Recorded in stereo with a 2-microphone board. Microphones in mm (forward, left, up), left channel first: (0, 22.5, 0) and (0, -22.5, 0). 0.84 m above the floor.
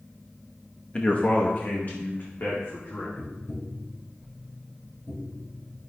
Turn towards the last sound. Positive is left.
turn(degrees=60)  # may be behind; listen again after turning